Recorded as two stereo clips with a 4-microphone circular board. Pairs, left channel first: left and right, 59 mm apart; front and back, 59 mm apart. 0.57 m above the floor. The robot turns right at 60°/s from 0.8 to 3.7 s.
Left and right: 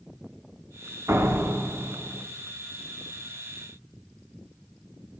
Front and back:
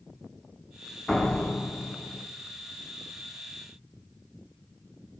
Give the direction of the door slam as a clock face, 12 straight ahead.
3 o'clock.